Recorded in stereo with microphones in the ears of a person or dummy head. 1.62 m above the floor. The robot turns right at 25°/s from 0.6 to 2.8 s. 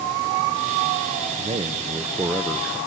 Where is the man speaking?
35° right, 0.8 m; by 2.8 s straight ahead, 0.8 m.